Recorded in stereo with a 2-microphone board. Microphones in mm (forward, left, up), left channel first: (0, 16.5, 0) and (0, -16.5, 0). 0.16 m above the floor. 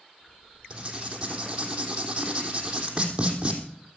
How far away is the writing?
About 3.5 m.